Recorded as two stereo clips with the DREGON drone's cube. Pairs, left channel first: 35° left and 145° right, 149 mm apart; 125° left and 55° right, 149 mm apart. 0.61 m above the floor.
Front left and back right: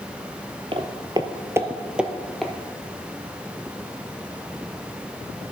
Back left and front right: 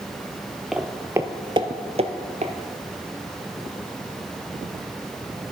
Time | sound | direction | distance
0.7 | footsteps | 140° right | 0.7 m